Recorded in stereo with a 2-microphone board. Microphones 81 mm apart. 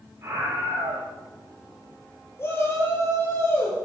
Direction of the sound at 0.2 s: 35° right (ahead or behind).